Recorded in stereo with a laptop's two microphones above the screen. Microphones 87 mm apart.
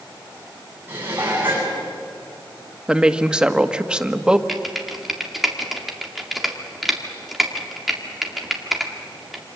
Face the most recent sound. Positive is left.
turn(degrees=0)  # may be behind; listen again after turning